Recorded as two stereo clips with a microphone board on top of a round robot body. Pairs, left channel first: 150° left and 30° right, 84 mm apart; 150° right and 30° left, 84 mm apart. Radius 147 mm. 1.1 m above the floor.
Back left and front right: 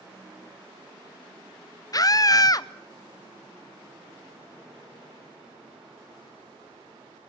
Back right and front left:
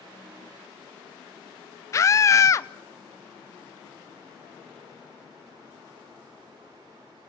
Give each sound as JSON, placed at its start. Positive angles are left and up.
{"t": 1.9, "sound": "a scream", "azimuth_deg": 170, "distance_m": 0.8}